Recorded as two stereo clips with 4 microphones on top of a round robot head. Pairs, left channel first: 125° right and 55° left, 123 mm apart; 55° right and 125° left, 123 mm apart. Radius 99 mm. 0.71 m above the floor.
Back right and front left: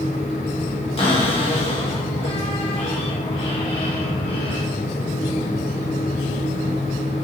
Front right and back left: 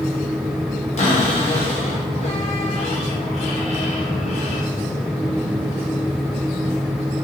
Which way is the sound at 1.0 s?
85° right.